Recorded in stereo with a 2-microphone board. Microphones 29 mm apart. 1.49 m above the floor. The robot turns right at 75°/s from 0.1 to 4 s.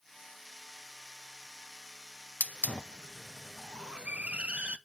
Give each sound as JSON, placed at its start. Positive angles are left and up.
{"t": 2.4, "sound": "a hiss", "side_deg": 70, "distance_m": 0.6}